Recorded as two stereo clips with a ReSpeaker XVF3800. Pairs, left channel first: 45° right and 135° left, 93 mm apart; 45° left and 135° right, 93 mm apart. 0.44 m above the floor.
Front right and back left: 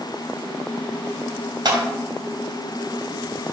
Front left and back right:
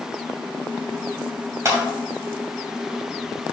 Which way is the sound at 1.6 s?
170° left.